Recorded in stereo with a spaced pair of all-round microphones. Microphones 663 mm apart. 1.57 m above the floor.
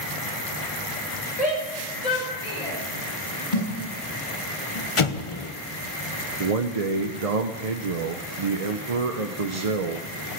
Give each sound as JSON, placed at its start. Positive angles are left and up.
{"t": 1.4, "sound": "a shout", "side_deg": 65, "distance_m": 6.0}
{"t": 3.5, "sound": "a thud", "side_deg": 80, "distance_m": 7.0}
{"t": 5.0, "sound": "an explosion", "side_deg": 50, "distance_m": 1.0}
{"t": 6.4, "sound": "a man speaking", "side_deg": -60, "distance_m": 0.8}